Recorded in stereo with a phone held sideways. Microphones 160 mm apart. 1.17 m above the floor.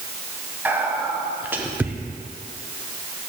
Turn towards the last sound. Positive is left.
turn(degrees=-10)  # may be behind; listen again after turning